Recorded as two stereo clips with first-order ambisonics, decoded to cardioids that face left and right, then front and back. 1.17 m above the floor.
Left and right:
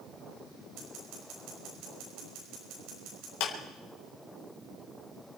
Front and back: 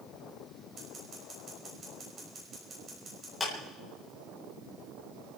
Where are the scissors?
115° right, 6 m.